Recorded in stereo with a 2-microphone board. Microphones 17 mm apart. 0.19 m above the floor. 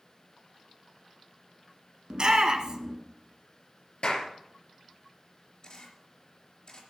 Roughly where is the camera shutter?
Left.